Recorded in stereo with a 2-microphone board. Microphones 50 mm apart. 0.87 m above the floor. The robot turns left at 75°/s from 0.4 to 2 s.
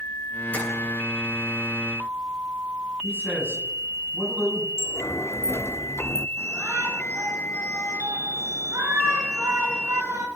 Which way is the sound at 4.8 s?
65° left (ahead or behind).